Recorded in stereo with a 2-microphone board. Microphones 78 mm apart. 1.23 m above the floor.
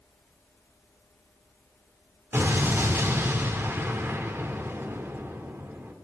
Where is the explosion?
30° right (ahead or behind), 1.7 m.